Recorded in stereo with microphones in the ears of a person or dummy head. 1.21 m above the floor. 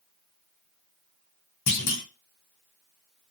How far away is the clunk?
About 0.6 m.